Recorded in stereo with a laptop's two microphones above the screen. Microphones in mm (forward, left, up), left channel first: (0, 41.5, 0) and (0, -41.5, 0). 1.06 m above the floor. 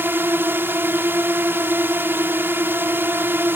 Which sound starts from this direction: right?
A drone, at 0.0 s.